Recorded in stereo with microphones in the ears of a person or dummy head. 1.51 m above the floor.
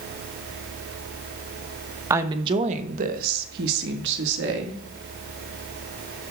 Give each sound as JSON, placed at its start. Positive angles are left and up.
{"t": 2.1, "sound": "a woman speaking", "side_deg": -20, "distance_m": 1.0}